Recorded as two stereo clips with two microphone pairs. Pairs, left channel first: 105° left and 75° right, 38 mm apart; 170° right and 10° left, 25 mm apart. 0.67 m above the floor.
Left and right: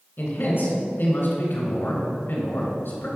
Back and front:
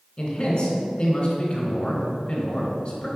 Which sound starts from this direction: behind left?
A man speaking, at 0.2 s.